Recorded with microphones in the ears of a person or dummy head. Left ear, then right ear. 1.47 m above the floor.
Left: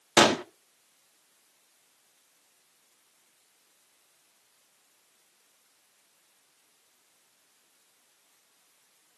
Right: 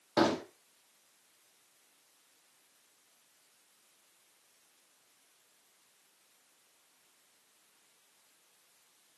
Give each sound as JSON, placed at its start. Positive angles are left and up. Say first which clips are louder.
{"t": 0.2, "sound": "a gunshot", "louder": "left 8 dB", "side_deg": 65, "distance_m": 0.7}